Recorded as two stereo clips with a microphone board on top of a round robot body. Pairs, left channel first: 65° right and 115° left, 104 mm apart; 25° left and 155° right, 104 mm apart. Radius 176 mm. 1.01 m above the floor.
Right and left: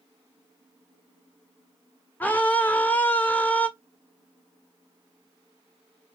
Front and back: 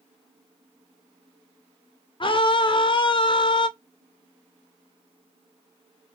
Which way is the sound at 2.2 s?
5° left.